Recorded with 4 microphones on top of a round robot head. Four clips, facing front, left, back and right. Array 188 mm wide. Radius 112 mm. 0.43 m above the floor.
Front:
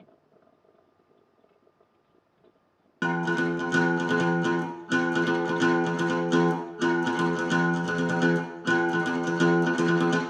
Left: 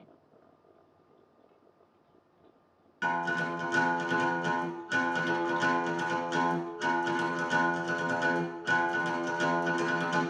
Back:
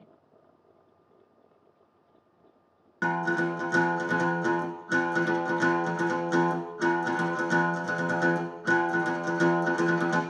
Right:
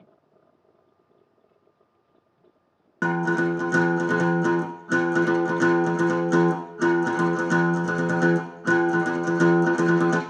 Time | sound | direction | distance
3.0 | a guitar | 70° right | 0.9 m